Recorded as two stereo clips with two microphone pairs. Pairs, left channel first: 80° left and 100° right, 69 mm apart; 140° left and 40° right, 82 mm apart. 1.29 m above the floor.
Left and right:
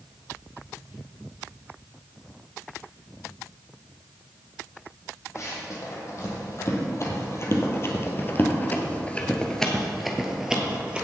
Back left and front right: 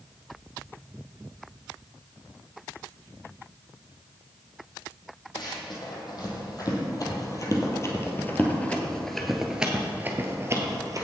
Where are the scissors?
I don't hear scissors.